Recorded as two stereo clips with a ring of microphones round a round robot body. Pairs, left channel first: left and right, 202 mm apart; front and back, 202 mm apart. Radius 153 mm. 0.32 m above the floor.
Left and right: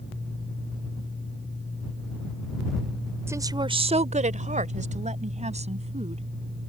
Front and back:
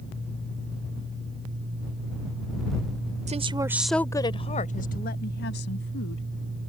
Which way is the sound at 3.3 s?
160° right.